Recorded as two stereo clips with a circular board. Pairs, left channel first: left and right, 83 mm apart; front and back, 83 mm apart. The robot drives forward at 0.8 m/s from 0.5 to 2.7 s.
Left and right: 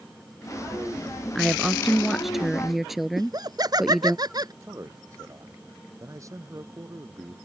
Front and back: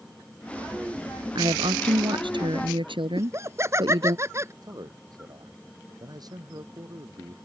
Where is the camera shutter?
No camera shutter in this recording.